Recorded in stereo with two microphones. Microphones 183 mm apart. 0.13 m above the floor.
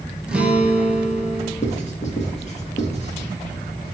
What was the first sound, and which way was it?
A guitar, 5° right (ahead or behind).